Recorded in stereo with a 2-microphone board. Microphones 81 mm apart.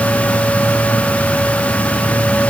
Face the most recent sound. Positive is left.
No sound to turn to.